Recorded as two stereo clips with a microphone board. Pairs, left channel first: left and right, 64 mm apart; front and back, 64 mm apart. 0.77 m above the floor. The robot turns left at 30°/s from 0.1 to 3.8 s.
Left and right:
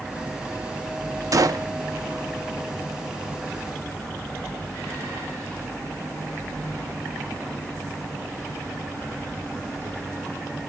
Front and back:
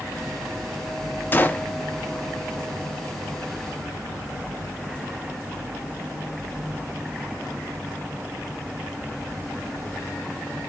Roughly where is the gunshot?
Ahead right.